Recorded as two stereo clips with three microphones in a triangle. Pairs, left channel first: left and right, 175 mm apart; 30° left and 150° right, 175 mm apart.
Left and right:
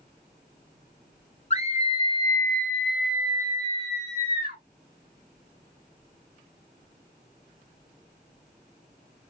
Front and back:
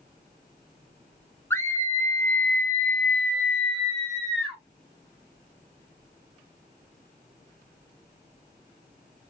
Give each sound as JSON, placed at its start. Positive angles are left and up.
{"t": 1.5, "sound": "a scream", "azimuth_deg": 95, "distance_m": 1.3}